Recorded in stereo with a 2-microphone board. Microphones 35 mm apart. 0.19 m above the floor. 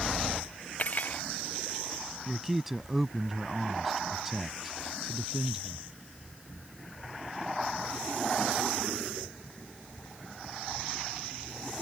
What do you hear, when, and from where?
0.8 s cutlery clinking: 45° left (ahead or behind)
2.3 s a man speaking: 5° right (ahead or behind)